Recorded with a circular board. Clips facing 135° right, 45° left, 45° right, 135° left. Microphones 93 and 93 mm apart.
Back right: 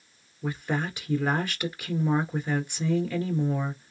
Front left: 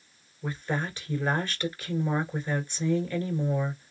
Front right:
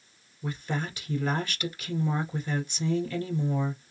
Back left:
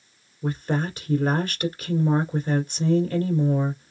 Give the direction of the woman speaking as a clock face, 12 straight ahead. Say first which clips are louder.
Back right 2 dB, back left 7 dB; 7 o'clock.